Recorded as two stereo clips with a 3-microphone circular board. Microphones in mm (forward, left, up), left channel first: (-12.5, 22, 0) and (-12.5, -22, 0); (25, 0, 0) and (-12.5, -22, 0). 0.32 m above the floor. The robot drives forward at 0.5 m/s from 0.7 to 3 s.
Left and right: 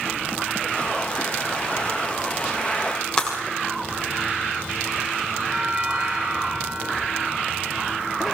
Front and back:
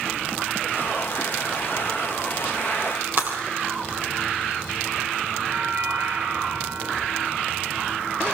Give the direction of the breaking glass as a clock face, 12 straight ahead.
7 o'clock.